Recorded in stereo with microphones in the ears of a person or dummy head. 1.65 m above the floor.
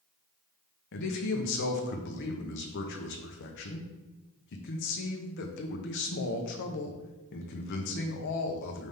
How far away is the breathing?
I don't hear breathing.